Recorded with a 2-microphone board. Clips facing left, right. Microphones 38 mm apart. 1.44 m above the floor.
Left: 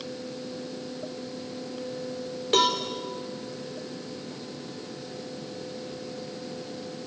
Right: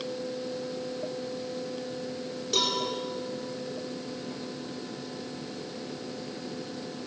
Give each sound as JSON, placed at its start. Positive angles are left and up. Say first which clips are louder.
{"t": 2.5, "sound": "a cowbell", "louder": "left 6 dB", "side_deg": 45, "distance_m": 4.0}